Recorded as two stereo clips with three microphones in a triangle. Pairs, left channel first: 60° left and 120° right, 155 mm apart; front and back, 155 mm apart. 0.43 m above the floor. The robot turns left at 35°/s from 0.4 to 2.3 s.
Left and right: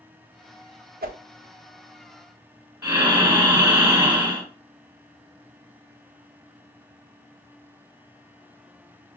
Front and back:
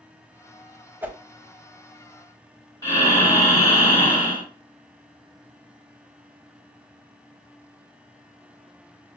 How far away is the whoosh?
About 0.5 m.